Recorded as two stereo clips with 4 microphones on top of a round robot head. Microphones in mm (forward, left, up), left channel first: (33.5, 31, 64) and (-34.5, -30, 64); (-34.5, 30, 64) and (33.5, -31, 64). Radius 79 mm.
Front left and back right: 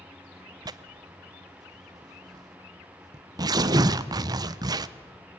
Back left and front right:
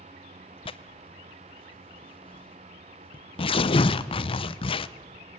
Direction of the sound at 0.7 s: 170° left.